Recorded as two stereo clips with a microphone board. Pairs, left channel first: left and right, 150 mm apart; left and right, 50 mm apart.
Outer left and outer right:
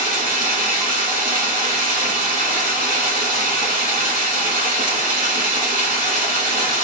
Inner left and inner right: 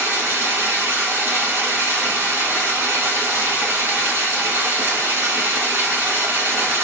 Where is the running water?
65° right (ahead or behind), 2.0 m.